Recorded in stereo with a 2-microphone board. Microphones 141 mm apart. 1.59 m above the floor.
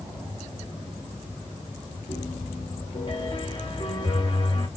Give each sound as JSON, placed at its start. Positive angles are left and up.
{"t": 2.1, "sound": "a piano", "side_deg": 40, "distance_m": 1.9}